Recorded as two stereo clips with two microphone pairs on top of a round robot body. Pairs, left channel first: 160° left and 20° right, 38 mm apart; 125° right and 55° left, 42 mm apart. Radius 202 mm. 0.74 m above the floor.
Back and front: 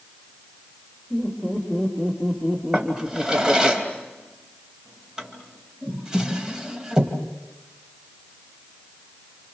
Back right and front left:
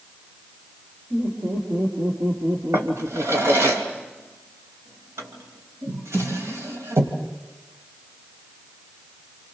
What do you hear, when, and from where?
1.1 s laughter: 80° left, 4.5 m; by 3.7 s 25° left, 1.7 m
2.7 s a drawer: 50° left, 2.5 m